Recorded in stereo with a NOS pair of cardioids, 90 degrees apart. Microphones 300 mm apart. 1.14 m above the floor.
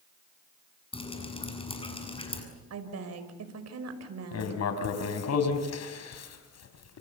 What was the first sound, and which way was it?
Dripping, 20° left.